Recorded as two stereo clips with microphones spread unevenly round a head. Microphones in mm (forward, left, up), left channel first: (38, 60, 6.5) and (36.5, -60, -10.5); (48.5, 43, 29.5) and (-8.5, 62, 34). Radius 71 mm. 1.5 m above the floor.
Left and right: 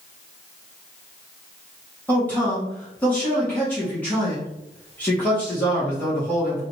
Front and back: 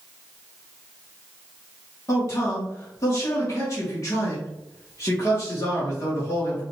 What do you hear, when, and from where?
2.1 s a man speaking: 10° left, 2.0 m